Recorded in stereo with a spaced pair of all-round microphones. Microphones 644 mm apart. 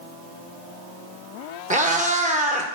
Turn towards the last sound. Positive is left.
turn(degrees=-10)  # may be behind; listen again after turning